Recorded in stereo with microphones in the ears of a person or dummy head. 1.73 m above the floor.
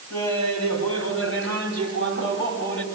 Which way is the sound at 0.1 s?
75° left (ahead or behind).